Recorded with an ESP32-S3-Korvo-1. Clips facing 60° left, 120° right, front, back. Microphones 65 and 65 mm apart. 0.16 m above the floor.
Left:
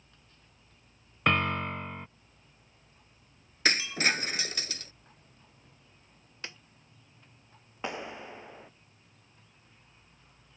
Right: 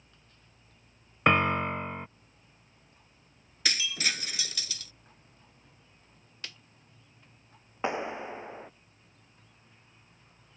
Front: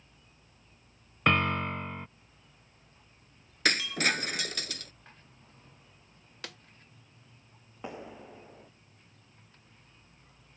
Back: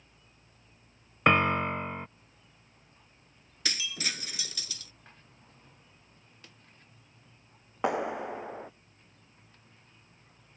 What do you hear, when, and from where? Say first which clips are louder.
1.3 s a piano: right 3 dB, back 3 dB; 150° right
3.6 s breaking glass: left 5 dB, front 8 dB; 15° left
6.4 s a snare drum: left 2 dB, front 13 dB; 5° right
7.8 s a clap: right 6 dB, back 13 dB; 175° left